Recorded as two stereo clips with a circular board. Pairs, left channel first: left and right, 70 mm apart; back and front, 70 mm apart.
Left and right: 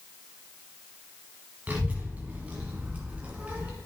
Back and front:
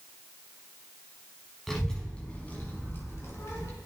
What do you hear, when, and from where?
1.7 s a child speaking: 100° right, 1.0 m; by 3.7 s 155° right, 1.6 m